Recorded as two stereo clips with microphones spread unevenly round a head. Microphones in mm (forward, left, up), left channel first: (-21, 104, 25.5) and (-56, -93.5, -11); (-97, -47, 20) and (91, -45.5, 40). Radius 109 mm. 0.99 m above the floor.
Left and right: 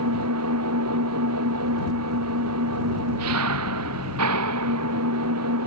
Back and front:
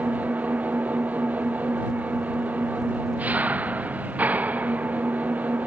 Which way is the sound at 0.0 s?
80° right.